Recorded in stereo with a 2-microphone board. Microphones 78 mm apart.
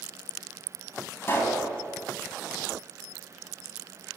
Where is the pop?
30° left (ahead or behind), 4.5 m.